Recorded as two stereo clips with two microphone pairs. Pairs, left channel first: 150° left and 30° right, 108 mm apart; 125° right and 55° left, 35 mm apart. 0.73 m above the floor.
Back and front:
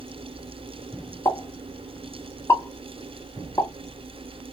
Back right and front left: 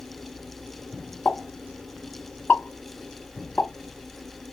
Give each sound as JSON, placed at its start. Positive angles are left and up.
{"t": 1.2, "sound": "a pop", "azimuth_deg": -155, "distance_m": 1.6}